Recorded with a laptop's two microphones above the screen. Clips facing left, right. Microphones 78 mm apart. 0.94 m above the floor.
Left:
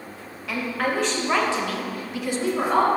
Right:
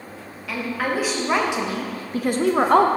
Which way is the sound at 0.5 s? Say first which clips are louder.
Even; centre (ahead or behind).